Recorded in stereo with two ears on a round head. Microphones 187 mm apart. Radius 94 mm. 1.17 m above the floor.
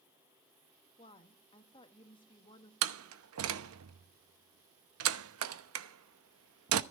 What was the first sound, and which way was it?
A woman speaking, 25° left (ahead or behind).